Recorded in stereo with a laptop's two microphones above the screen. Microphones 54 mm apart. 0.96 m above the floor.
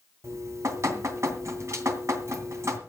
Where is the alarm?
I don't hear an alarm.